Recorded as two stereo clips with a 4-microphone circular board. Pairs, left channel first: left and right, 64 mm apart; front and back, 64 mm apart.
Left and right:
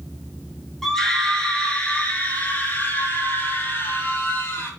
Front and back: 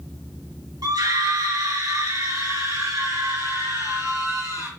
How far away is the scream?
About 5.5 m.